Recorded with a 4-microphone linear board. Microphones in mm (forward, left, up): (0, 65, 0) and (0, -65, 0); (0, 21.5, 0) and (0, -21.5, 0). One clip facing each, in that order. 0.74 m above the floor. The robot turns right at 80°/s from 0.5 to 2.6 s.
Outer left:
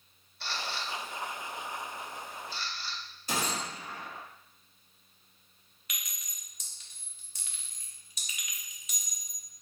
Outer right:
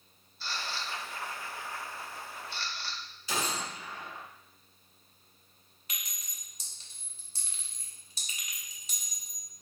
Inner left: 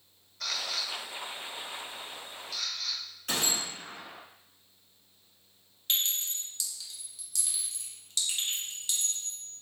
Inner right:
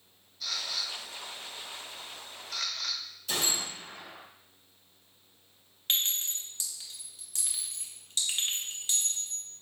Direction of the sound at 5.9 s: 30° right (ahead or behind).